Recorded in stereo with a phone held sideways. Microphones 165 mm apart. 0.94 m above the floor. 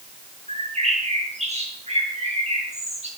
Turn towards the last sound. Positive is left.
turn(degrees=-45)  # may be behind; listen again after turning